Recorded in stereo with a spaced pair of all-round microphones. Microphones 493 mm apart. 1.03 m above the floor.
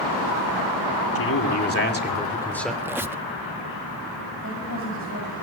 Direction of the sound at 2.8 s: 5° right (ahead or behind).